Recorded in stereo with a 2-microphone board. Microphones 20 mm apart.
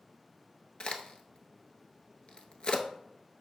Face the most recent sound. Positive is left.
turn(degrees=50)  # may be behind; listen again after turning